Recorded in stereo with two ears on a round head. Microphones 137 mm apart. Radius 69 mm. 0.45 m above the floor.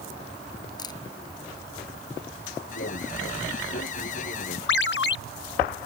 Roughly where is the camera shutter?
Left.